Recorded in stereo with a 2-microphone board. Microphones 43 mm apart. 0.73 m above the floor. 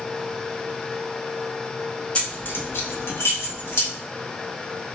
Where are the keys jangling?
30° left (ahead or behind), 0.5 m; by 3.9 s 60° left (ahead or behind), 1.1 m.